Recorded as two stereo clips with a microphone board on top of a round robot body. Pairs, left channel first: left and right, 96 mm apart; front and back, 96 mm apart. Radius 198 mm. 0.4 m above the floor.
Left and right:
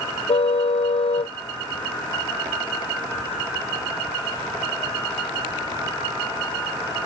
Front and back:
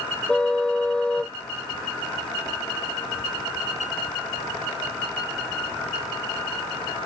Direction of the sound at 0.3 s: 80° left.